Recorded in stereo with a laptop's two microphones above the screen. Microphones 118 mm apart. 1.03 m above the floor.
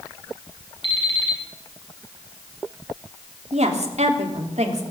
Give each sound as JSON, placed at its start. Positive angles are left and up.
{"t": 0.8, "sound": "an alarm clock", "side_deg": 45, "distance_m": 4.0}
{"t": 3.5, "sound": "a woman speaking", "side_deg": -70, "distance_m": 2.5}